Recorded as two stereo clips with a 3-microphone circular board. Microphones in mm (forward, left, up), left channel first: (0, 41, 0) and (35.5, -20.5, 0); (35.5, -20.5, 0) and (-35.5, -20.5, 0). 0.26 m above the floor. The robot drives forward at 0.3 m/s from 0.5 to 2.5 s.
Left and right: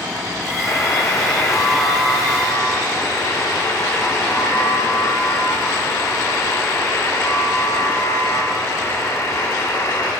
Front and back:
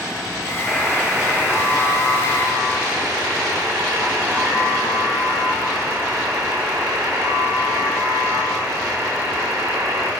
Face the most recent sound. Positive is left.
turn(degrees=150)